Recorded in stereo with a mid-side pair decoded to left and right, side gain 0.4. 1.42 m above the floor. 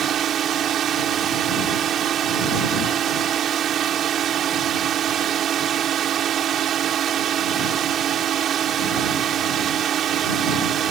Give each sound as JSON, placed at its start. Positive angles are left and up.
{"t": 0.0, "sound": "a drone", "azimuth_deg": -65}